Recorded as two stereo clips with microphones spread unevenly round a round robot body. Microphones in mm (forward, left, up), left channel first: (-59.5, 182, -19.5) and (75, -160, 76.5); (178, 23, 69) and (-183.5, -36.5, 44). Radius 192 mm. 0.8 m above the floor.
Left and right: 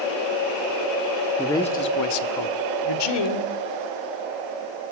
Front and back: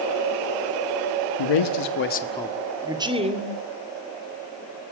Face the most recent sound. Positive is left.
turn(degrees=120)